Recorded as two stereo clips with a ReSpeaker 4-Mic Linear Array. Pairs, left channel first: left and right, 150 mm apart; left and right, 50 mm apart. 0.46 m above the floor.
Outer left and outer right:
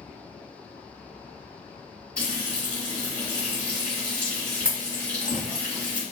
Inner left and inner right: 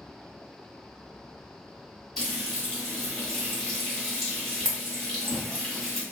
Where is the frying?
5° left (ahead or behind), 1.6 m.